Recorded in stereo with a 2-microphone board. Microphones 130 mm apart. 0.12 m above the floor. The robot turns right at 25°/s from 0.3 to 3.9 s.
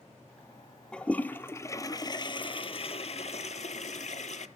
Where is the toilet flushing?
5° left, 0.8 m; by 4.5 s 80° left, 0.8 m.